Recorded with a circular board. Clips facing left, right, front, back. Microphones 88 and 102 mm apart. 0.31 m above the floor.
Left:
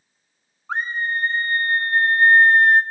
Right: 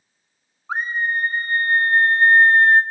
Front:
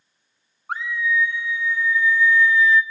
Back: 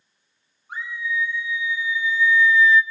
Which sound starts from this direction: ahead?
A scream, at 0.7 s.